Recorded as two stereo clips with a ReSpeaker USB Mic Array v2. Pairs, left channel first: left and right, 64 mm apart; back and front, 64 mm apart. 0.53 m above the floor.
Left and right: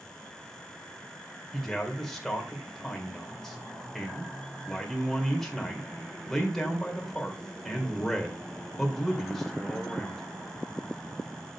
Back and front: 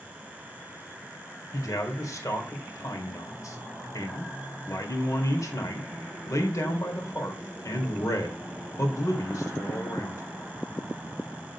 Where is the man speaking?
175° left, 1.9 m.